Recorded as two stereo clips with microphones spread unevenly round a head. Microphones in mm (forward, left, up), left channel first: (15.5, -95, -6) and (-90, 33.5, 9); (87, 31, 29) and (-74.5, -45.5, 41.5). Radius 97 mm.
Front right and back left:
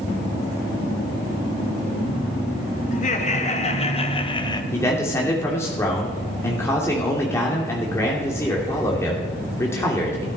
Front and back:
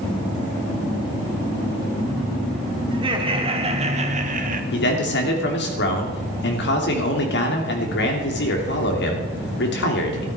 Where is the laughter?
90° right, 2.5 m; by 4.6 s 115° right, 1.6 m.